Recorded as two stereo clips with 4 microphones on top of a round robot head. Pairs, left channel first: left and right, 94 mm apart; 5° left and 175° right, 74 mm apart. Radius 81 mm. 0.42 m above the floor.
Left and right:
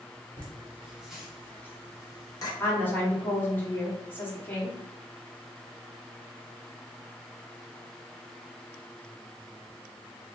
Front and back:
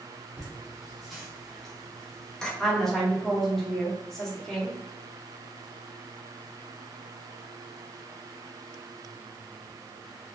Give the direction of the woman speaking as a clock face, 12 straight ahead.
9 o'clock.